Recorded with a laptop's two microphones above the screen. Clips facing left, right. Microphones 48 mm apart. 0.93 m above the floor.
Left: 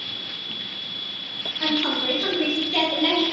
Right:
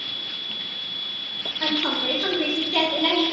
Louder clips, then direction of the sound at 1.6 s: Left 1 dB; centre (ahead or behind).